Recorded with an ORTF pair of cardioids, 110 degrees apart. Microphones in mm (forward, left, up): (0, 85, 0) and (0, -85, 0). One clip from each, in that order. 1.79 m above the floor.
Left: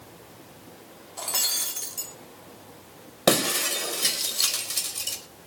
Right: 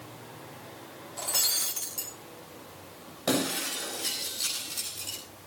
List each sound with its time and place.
1.2 s breaking glass: 15° left, 3 m
3.3 s breaking glass: 65° left, 4.5 m